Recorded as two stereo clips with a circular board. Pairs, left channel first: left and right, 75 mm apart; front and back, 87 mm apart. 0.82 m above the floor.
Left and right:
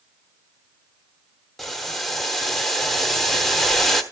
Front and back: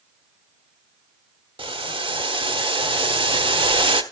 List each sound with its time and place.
1.6 s boiling: straight behind, 1.2 m